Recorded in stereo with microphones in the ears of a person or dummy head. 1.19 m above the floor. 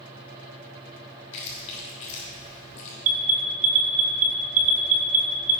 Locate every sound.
1.3 s chewing: 40° left (ahead or behind), 3 m
3.0 s an alarm: 45° right (ahead or behind), 1.4 m